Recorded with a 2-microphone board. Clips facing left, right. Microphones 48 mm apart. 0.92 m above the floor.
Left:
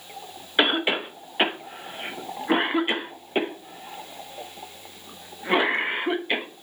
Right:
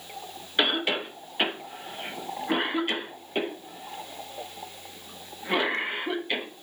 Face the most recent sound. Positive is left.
turn(degrees=20)  # may be behind; listen again after turning